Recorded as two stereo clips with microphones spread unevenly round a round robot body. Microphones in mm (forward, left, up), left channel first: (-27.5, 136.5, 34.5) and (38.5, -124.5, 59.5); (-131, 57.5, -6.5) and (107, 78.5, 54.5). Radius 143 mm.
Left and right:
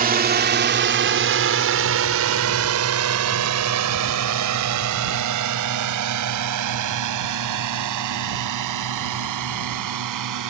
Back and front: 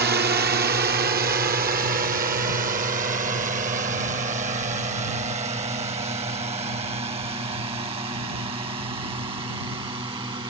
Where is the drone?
40° right; by 10.5 s 70° right.